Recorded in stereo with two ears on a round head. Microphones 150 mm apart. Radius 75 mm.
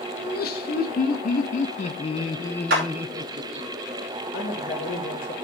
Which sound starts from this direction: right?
A clap, at 2.7 s.